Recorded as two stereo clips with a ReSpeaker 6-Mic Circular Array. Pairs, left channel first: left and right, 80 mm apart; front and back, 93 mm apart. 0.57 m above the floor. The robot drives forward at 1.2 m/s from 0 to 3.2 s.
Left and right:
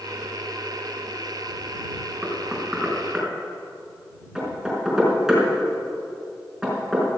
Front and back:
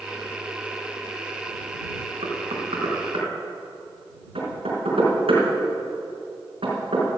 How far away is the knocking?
About 3 m.